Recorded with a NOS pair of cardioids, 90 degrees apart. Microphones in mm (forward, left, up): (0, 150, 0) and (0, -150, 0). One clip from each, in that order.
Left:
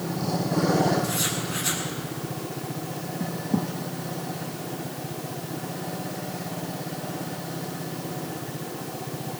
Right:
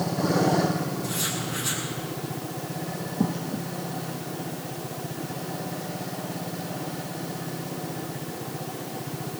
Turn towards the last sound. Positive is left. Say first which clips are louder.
# left 2 dB
turn(degrees=30)